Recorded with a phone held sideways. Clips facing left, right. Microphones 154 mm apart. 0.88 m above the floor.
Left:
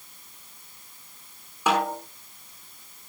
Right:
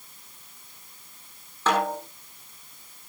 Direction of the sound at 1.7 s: 10° left (ahead or behind).